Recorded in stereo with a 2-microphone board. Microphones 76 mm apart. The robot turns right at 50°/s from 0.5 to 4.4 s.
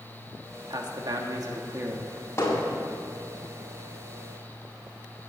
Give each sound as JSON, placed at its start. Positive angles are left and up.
{"t": 0.7, "sound": "a man speaking", "azimuth_deg": -95, "distance_m": 1.4}
{"t": 2.4, "sound": "hammering", "side_deg": 35, "distance_m": 4.0}